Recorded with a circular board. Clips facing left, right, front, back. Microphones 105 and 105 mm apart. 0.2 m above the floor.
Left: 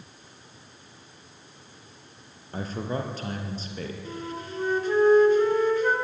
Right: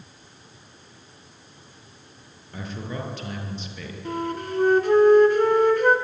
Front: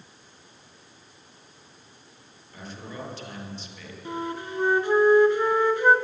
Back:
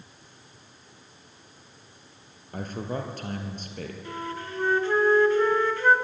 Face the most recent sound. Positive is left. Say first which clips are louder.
# right 7 dB, front 6 dB
turn(degrees=-70)